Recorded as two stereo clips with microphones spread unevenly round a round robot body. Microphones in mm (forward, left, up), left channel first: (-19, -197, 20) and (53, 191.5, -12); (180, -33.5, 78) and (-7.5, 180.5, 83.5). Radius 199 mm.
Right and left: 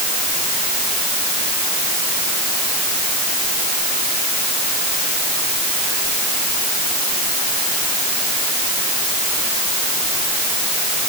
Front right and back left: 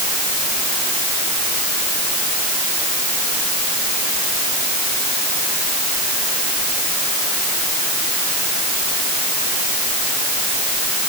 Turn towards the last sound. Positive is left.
No sound to turn to.